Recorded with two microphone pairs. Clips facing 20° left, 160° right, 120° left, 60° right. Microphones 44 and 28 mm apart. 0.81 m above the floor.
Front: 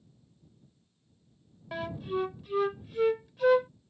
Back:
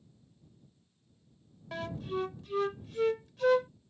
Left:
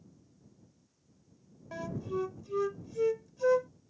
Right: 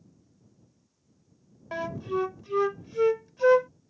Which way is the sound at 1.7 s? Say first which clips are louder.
Front 3 dB, right 6 dB; 50° right.